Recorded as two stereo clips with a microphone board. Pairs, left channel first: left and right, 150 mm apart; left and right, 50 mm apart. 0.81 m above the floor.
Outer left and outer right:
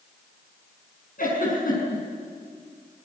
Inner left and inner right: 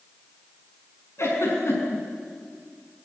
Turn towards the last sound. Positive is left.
turn(degrees=70)  # may be behind; listen again after turning